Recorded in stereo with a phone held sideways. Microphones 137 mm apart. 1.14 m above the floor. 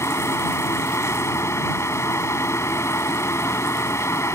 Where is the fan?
20° left (ahead or behind).